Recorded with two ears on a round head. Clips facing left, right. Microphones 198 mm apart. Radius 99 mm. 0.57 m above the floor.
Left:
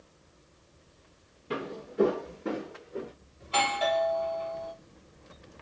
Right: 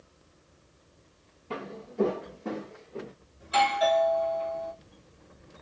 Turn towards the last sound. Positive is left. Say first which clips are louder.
# right 4 dB
turn(degrees=-20)  # may be behind; listen again after turning